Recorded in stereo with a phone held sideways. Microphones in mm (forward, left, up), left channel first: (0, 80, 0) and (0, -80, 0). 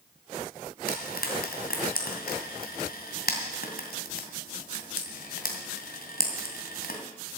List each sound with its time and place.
0.9 s frying: 70° left (ahead or behind), 2.5 m